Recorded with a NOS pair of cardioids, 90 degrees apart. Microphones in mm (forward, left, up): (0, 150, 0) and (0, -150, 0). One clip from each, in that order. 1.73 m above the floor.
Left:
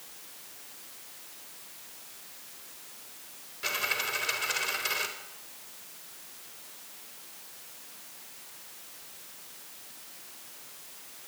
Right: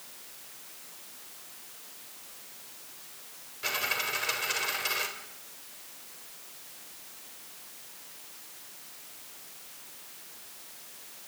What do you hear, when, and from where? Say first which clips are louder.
3.6 s a dropped coin: even; 5° left, 4 m